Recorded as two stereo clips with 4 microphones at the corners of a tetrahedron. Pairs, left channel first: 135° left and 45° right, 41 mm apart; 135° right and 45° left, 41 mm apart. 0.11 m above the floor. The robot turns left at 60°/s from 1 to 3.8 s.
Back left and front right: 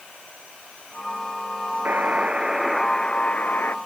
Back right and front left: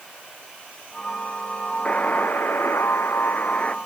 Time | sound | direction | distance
1.9 | a buzzer | 80° right | ?